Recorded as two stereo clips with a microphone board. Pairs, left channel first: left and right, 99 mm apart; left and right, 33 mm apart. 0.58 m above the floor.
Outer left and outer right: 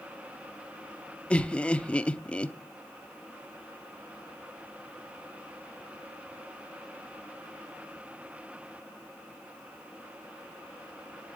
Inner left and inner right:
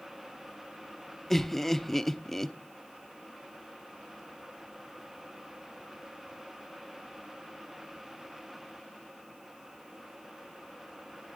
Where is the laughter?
10° left (ahead or behind), 0.7 m.